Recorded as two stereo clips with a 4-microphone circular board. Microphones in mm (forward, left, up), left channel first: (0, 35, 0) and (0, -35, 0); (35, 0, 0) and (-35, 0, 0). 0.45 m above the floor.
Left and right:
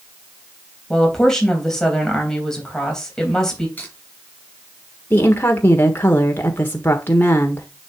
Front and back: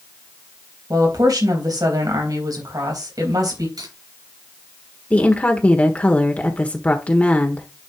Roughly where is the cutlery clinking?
Behind.